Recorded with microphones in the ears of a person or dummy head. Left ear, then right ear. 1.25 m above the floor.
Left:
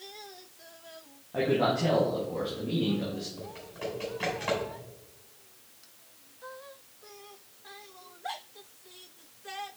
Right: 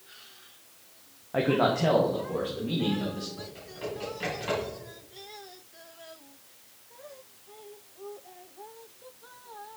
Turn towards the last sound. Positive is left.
turn(degrees=20)  # may be behind; listen again after turning